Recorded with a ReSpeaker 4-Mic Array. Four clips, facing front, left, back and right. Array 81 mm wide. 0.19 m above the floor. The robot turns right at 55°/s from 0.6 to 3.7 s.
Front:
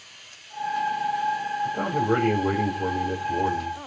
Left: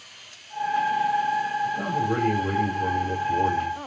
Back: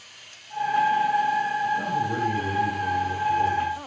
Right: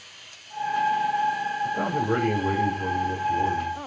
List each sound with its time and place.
1.6 s a man speaking: 55° right, 6.5 m; by 3.8 s 60° left, 6.5 m